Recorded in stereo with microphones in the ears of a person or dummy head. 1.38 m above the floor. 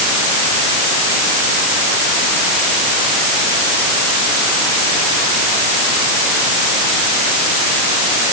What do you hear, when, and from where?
Only background noise.